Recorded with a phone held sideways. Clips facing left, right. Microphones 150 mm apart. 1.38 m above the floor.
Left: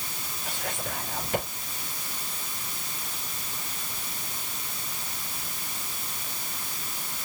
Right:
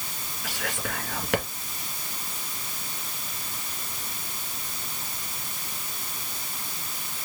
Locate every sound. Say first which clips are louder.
0.4 s whispering: right 2 dB; 75° right (ahead or behind), 2.0 m